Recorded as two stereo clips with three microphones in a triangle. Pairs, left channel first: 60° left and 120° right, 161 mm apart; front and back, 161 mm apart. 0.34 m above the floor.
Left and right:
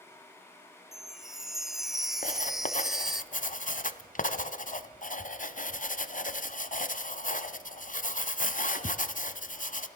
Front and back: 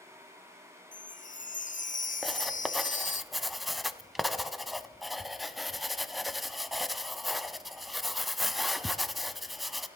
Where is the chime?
30° right, 0.5 m.